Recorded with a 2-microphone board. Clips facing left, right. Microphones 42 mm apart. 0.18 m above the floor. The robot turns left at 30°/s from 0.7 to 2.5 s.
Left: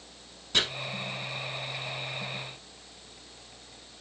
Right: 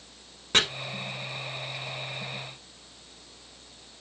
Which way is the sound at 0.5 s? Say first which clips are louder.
Right 4 dB; 50° right (ahead or behind).